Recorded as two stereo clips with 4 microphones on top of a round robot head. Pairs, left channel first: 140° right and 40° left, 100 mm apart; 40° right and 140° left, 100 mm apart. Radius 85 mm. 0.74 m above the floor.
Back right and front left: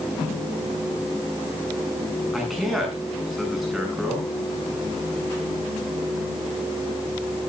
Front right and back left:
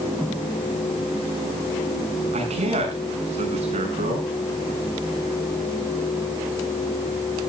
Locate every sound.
2.3 s a man speaking: 130° left, 8 m